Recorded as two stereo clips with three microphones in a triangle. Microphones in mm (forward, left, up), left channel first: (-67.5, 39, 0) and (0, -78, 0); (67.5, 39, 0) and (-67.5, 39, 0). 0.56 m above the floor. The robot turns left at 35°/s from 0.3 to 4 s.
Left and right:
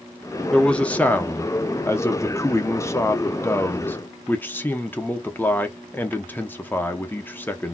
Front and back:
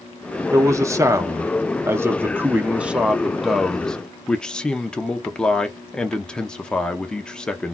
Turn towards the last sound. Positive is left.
turn(degrees=75)